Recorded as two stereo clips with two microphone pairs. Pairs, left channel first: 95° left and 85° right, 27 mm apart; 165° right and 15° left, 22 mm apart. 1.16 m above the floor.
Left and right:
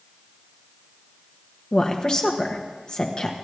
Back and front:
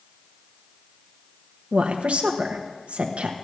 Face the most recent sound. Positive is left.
turn(degrees=35)